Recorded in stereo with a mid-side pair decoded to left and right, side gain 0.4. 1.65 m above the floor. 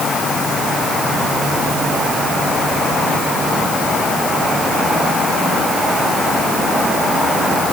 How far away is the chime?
No chime in this recording.